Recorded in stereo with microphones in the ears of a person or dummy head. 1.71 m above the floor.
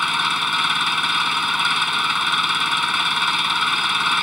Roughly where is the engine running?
Centre.